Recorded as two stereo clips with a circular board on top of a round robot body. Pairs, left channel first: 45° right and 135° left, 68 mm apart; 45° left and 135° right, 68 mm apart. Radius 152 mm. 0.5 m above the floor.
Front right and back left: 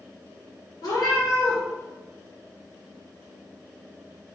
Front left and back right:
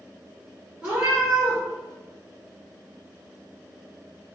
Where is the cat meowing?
60° right, 1.7 m.